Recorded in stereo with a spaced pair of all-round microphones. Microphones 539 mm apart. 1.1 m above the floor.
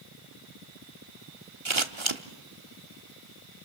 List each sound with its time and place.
1.6 s scissors: 60° right (ahead or behind), 1.2 m